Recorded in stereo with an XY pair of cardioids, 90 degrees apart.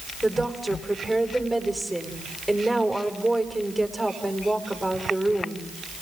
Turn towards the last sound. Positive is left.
turn(degrees=5)